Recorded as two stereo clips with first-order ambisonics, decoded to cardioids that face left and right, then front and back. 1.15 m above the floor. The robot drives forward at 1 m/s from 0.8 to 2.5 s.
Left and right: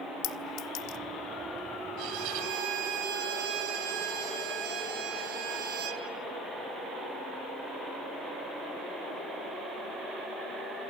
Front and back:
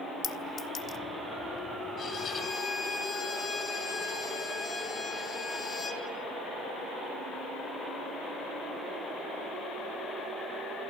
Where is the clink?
60° left, 1.1 m; by 1.0 s 70° left, 1.0 m.